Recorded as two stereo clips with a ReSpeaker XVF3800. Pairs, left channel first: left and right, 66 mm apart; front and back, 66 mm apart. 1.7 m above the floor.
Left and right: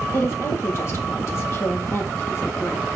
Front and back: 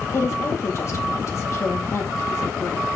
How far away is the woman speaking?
About 2.5 m.